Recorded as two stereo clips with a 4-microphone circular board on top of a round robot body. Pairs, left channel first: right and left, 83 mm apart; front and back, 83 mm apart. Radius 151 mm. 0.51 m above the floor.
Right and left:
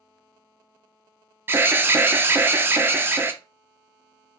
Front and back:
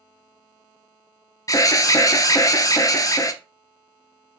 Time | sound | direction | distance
1.5 | an alarm | 35° left | 0.7 m